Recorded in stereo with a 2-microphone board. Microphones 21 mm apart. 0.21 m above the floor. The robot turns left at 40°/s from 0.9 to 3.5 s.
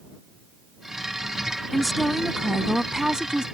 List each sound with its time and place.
1.7 s a woman speaking: 15° left; by 3.5 s 55° right